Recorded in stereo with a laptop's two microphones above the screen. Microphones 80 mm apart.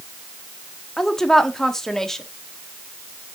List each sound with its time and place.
1.0 s a woman speaking: 5° left (ahead or behind), 1.3 m